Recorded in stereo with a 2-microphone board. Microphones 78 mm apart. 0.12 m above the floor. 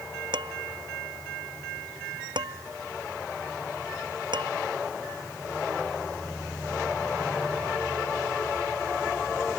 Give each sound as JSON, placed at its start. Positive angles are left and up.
{"t": 0.3, "sound": "dishes clattering", "side_deg": -80}